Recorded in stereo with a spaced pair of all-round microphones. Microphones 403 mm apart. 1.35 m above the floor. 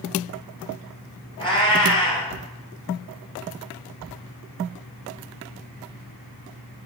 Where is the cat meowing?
15° left (ahead or behind), 2.5 m.